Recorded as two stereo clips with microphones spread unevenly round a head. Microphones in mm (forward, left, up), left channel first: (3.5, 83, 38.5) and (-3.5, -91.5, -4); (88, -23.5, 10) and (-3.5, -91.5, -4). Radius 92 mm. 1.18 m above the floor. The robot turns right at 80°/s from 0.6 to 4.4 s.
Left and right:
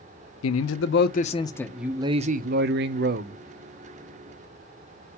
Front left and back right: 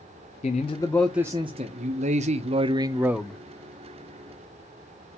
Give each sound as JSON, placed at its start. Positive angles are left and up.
{"t": 0.4, "sound": "a man speaking", "azimuth_deg": 90, "distance_m": 0.7}